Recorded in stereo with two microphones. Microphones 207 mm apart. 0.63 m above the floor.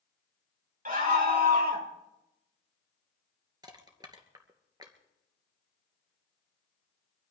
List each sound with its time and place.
0.8 s a scream: 40° right (ahead or behind), 4.5 m; by 1.9 s 50° right (ahead or behind), 5 m
3.6 s crushing: 20° right (ahead or behind), 2.5 m